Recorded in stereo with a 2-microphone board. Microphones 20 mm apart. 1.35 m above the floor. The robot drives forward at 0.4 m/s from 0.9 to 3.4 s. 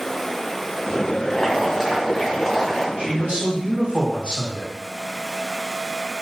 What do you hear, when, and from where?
1.3 s boiling: 20° left (ahead or behind), 1.0 m; by 2.9 s 15° left (ahead or behind), 1.3 m
3.0 s a man speaking: 70° right (ahead or behind), 1.8 m; by 4.7 s 65° right (ahead or behind), 1.9 m